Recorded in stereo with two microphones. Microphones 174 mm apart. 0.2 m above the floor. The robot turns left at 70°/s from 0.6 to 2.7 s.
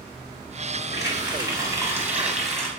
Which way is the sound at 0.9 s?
20° right (ahead or behind).